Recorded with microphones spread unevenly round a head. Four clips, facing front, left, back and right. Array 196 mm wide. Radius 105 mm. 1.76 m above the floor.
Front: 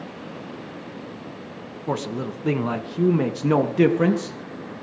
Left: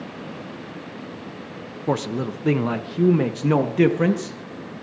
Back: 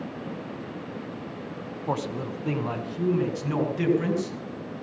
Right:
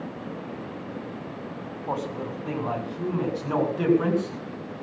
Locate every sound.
1.9 s a man speaking: 75° left, 1.9 m; by 4.4 s 35° left, 3.5 m